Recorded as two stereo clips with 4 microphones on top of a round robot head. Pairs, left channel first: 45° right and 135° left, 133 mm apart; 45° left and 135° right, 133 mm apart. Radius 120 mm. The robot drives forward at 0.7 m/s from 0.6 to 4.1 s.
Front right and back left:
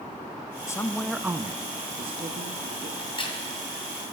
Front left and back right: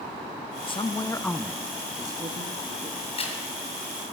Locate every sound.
0.7 s a woman speaking: 15° left, 0.6 m; by 2.9 s 175° left, 1.2 m
3.0 s a crack: 5° left, 2 m